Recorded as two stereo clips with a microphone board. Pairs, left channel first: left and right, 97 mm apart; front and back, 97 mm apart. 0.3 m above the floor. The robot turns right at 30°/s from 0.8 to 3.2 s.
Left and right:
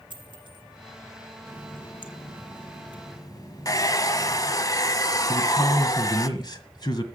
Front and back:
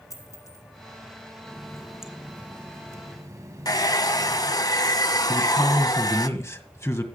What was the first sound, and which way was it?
A dropped coin, 55° right.